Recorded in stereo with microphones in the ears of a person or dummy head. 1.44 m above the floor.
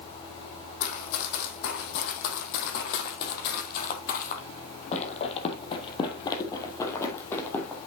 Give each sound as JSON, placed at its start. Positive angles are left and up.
{"t": 0.8, "sound": "running footsteps", "side_deg": 65, "distance_m": 3.5}